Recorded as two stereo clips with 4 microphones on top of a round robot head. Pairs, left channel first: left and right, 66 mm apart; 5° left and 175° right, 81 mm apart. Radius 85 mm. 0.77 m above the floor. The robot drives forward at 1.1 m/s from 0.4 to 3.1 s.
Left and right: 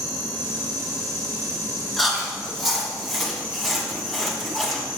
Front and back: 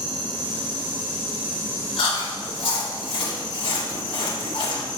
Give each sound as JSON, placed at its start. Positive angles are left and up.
{"t": 0.0, "sound": "an insect", "azimuth_deg": -130, "distance_m": 2.0}
{"t": 2.0, "sound": "chewing", "azimuth_deg": 0, "distance_m": 4.0}